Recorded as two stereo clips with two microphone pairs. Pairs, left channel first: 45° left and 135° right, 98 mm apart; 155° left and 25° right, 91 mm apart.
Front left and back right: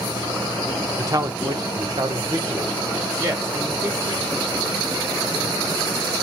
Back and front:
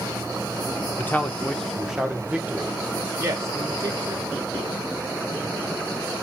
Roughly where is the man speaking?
Behind right.